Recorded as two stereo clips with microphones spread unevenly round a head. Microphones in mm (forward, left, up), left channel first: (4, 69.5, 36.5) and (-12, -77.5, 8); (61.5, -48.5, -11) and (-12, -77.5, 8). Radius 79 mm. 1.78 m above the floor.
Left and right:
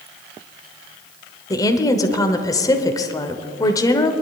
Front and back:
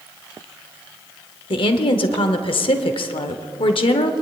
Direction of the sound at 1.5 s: 15° left.